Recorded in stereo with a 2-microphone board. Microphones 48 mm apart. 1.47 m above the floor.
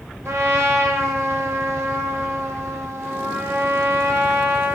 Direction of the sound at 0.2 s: 65° right (ahead or behind).